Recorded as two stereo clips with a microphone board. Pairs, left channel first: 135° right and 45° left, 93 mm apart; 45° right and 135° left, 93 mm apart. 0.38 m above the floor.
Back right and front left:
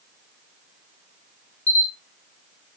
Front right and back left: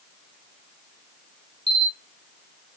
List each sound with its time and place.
1.7 s a camera shutter: 60° right, 1.6 m